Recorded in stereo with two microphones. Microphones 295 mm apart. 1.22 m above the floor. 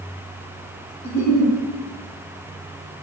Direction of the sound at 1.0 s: 55° right (ahead or behind).